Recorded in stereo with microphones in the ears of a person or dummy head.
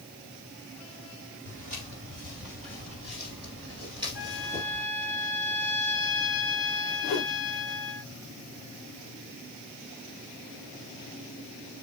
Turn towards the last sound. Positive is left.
turn(degrees=45)  # may be behind; listen again after turning